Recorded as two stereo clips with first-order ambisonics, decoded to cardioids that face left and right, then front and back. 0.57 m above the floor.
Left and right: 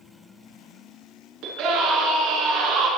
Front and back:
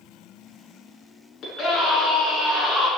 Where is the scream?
55° right, 6.5 m.